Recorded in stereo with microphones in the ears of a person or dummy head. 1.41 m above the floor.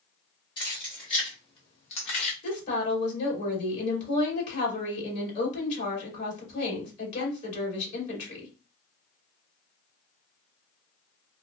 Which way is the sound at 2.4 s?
40° left (ahead or behind).